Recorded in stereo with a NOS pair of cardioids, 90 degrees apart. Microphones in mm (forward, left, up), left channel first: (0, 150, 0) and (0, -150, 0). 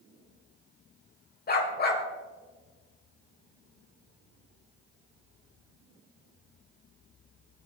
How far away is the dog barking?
About 4 m.